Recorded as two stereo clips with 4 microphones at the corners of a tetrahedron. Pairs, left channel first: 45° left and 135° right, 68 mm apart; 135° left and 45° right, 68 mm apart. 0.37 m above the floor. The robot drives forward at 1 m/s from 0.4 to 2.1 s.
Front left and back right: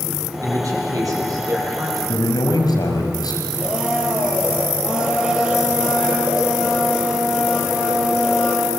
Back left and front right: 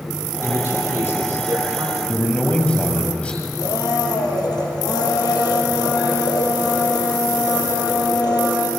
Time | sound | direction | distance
0.4 | a man speaking | 100° right | 9 m
2.1 | a man speaking | 65° left | 6.5 m
3.6 | a blender | 145° left | 5 m